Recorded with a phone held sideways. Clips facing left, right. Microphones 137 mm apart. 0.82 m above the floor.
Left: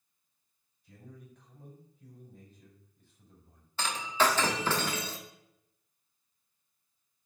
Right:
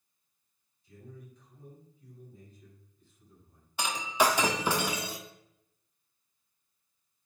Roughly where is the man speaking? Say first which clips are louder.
Right 2 dB; left.